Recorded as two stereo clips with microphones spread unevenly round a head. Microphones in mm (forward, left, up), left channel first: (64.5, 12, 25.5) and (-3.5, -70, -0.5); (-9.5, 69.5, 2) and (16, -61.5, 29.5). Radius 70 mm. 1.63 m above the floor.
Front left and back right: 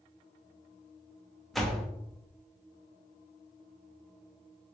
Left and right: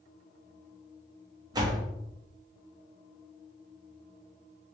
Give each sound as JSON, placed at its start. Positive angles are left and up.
{"t": 1.5, "sound": "a door slam", "azimuth_deg": -30, "distance_m": 0.7}